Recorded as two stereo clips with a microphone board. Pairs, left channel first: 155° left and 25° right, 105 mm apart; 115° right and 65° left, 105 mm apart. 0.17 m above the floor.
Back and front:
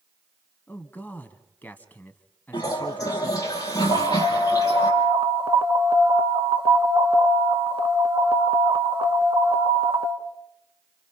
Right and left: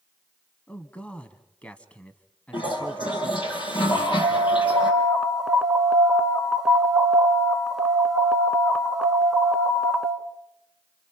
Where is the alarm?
20° right, 1.3 m.